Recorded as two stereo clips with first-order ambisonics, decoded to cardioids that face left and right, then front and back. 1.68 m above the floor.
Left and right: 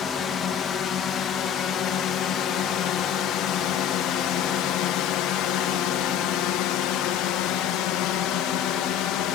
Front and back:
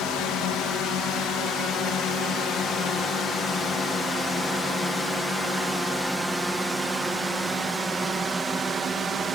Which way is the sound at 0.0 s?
35° left.